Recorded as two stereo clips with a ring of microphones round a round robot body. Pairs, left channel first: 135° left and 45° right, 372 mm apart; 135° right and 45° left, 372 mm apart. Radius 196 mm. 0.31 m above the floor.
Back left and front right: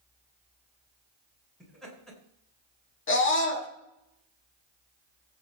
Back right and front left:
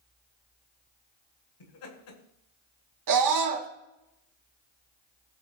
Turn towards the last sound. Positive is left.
turn(degrees=80)